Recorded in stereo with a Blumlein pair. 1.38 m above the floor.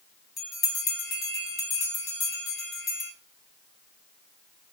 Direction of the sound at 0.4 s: 25° left.